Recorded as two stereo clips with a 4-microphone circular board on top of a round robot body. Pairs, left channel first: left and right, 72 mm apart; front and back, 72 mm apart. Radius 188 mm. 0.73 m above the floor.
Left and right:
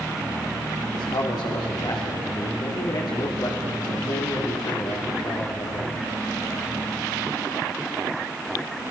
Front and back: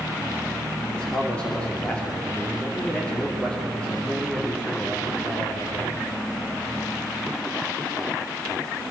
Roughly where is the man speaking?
Left.